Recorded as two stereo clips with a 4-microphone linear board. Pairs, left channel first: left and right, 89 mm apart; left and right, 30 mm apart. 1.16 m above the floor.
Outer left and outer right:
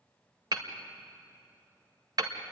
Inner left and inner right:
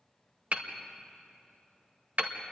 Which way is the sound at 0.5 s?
50° right (ahead or behind).